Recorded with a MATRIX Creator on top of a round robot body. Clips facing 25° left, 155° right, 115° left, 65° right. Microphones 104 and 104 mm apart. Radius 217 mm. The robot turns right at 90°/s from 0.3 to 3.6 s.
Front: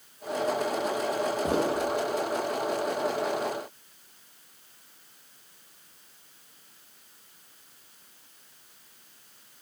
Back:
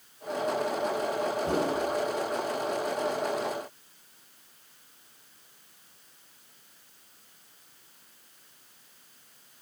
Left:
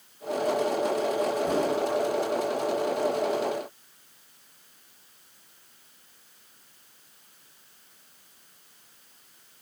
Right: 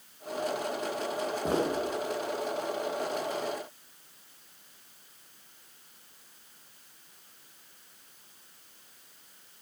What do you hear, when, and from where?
1.4 s footsteps: 5° left, 3.5 m; by 1.7 s 25° left, 3.5 m